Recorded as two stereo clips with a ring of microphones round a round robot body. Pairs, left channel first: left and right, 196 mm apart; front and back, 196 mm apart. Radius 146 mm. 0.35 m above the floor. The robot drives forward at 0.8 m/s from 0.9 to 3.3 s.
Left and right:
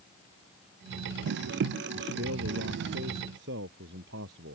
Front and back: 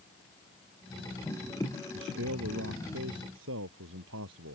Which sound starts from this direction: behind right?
A man speaking, at 1.9 s.